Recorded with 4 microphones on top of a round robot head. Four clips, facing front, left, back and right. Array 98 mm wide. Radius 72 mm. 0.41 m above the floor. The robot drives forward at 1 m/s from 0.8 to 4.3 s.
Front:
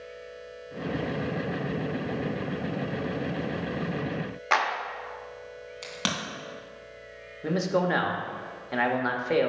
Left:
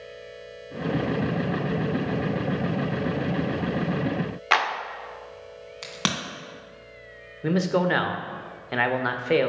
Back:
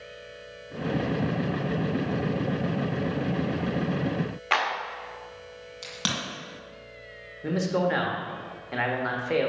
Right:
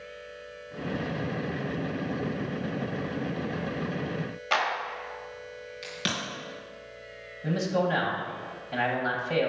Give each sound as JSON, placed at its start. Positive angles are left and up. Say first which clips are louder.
{"t": 4.5, "sound": "a clap", "louder": "left 4 dB, front 1 dB", "azimuth_deg": 80, "distance_m": 1.1}
{"t": 5.8, "sound": "a crack", "louder": "left 4 dB, front 1 dB", "azimuth_deg": 85, "distance_m": 2.0}
{"t": 7.4, "sound": "a man speaking", "louder": "left 4 dB, even", "azimuth_deg": 80, "distance_m": 1.3}